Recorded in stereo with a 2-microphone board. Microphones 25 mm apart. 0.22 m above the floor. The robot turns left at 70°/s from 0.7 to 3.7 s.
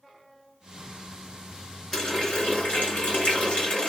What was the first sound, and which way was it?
A running tap, 160° left.